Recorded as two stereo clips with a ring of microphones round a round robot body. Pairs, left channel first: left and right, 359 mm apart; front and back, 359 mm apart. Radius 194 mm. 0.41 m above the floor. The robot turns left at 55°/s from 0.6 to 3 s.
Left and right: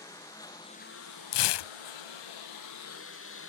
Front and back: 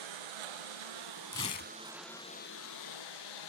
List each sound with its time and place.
0.0 s a lawn mower: 175° left; by 3.5 s 35° left
1.3 s tearing paper: 80° left; by 1.7 s 60° left